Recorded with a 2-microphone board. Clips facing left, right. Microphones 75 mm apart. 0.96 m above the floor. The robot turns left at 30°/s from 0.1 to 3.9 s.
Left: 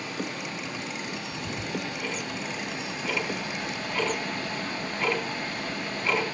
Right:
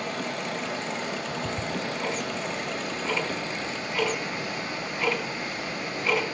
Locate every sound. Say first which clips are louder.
0.0 s running water: right 3 dB; 45° right, 4.5 m; by 6.3 s 160° right, 4.5 m
1.1 s ticking: right 4 dB; 80° right, 3.5 m; by 6.2 s centre (ahead or behind), 3.5 m